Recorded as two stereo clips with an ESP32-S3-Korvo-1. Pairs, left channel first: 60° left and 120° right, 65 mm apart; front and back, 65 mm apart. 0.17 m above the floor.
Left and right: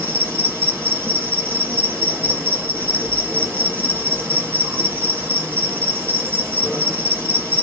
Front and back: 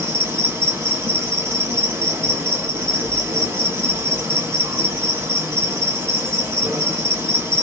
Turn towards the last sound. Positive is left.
turn(degrees=-165)